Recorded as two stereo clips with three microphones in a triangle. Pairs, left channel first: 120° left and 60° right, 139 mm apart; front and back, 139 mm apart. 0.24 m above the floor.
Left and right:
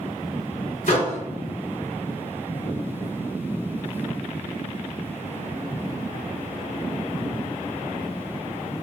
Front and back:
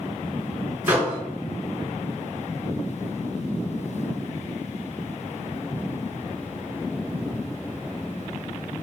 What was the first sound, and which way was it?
A microwave, 105° left.